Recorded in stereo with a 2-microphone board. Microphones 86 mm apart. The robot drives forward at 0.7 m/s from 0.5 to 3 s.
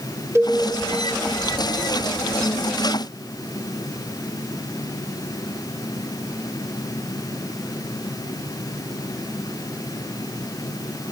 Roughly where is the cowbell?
Right.